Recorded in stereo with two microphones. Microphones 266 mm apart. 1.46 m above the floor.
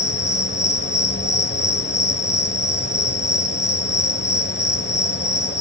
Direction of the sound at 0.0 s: 40° left (ahead or behind).